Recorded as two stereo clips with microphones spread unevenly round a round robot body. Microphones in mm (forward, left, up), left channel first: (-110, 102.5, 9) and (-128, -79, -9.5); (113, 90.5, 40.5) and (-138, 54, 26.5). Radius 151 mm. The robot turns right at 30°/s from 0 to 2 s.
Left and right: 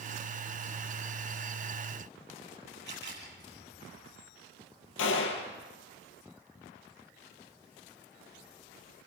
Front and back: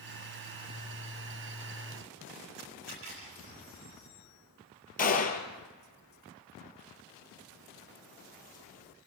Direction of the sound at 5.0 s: 65° left.